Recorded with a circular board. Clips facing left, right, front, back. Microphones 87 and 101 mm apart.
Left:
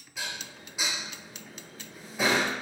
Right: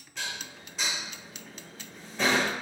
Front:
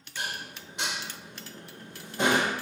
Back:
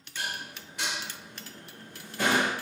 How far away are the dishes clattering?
About 0.5 m.